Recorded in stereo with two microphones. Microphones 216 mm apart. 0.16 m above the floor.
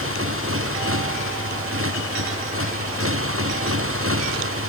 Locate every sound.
0.0 s a motorcycle: 75° right (ahead or behind); by 4.7 s 80° right